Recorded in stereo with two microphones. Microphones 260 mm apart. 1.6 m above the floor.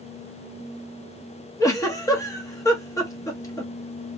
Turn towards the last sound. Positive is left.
turn(degrees=10)  # may be behind; listen again after turning